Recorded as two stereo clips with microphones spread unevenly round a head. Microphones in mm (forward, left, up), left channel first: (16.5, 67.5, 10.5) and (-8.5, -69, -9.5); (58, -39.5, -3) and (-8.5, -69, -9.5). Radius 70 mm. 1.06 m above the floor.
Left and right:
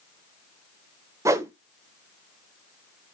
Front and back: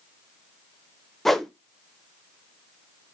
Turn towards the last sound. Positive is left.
turn(degrees=-70)